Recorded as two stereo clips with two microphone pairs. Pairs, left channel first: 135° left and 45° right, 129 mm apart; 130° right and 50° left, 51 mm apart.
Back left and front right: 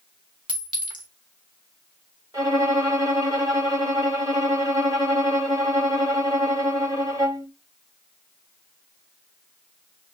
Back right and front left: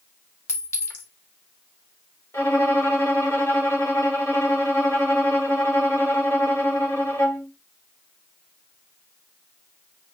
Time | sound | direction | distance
0.5 | a clink | 95° right | 1.6 m
2.3 | a violin | 110° right | 2 m